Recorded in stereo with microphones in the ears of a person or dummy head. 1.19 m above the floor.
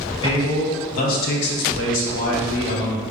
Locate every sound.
0.2 s a man speaking: 30° left (ahead or behind), 1.3 m; by 3.0 s 25° left (ahead or behind), 1.1 m